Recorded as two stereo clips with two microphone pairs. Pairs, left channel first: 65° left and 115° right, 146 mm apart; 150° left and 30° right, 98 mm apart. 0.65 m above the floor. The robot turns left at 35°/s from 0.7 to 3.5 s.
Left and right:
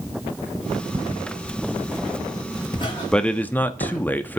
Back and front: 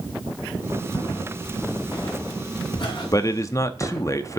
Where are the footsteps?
160° right, 4 m; by 4.0 s 85° left, 4 m.